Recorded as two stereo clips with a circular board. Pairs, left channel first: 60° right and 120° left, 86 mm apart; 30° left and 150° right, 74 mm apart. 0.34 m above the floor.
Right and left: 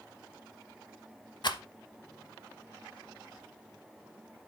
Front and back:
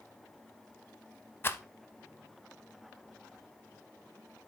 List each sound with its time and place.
1.4 s a rattle: 30° right, 0.5 m